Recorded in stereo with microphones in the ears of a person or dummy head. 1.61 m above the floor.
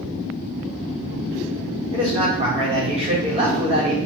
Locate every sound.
1.9 s a man speaking: 30° right (ahead or behind), 1.6 m